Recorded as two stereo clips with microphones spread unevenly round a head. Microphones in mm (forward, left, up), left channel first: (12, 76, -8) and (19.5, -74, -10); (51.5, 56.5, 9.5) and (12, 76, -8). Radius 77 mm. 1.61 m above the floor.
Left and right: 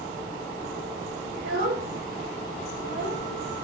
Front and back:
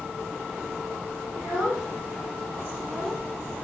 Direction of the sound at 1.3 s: 120° right.